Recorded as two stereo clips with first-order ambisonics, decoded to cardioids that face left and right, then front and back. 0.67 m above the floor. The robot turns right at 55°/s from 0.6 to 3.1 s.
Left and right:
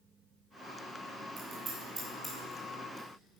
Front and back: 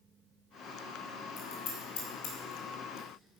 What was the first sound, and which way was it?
Scissors, 40° right.